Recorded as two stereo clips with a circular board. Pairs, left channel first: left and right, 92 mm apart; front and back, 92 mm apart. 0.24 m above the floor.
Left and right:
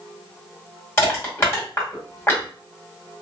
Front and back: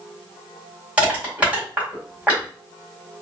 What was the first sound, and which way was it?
Crushing, 120° left.